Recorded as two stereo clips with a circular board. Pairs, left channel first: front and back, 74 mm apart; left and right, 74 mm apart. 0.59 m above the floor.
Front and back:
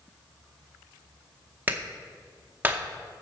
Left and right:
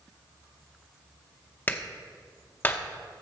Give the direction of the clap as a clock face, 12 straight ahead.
8 o'clock.